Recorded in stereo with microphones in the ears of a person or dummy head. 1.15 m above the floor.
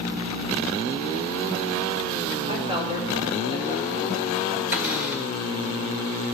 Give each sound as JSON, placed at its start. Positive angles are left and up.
{"t": 2.5, "sound": "a woman speaking", "side_deg": -25, "distance_m": 3.0}
{"t": 4.7, "sound": "a cupboard door", "side_deg": -10, "distance_m": 1.9}